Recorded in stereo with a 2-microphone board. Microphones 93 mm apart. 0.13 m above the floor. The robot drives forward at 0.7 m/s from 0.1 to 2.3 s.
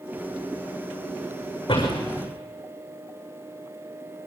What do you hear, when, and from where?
1.7 s a door slam: 50° left (ahead or behind), 8 m